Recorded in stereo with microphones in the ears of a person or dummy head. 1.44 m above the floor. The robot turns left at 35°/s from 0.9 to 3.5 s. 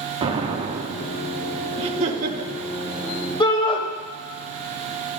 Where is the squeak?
I don't hear a squeak.